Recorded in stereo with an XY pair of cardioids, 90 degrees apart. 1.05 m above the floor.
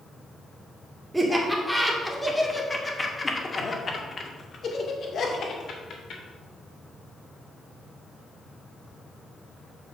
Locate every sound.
1.1 s laughter: 10° right, 2.5 m; by 6.2 s 70° left, 3 m